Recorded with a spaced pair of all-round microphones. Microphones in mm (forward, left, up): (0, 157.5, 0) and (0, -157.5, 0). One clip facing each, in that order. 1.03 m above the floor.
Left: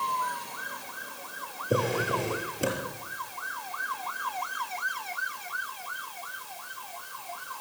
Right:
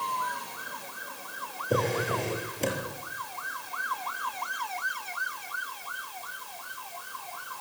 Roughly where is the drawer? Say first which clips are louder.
Even; centre.